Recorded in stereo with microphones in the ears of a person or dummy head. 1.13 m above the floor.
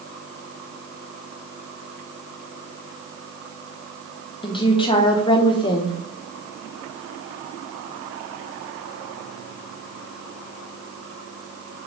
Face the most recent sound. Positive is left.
turn(degrees=20)  # may be behind; listen again after turning